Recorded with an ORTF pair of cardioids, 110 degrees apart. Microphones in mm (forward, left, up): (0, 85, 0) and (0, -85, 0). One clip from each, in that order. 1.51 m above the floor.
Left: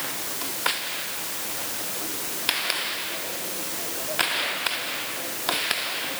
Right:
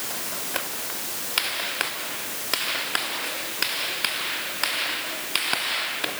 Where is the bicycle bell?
No bicycle bell in this recording.